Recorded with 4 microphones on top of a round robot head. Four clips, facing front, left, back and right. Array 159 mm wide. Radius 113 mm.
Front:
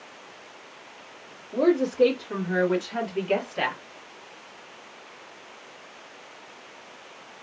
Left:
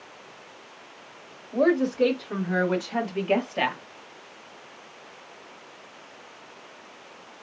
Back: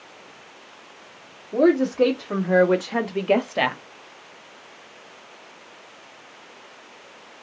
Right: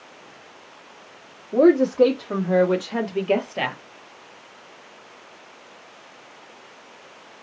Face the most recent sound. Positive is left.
turn(degrees=175)